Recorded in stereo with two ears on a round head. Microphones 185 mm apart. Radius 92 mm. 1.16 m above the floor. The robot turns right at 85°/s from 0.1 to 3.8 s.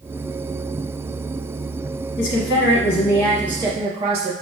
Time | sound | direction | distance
2.2 | a woman speaking | 60° left | 1.0 m